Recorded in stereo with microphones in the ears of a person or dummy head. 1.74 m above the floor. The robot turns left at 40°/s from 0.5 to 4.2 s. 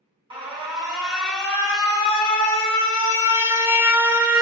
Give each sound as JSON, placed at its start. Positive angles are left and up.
{"t": 0.3, "sound": "an alarm", "azimuth_deg": -155, "distance_m": 0.7}